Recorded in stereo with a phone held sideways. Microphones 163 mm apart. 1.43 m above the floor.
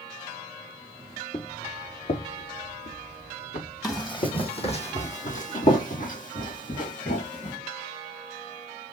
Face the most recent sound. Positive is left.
turn(degrees=50)  # may be behind; listen again after turning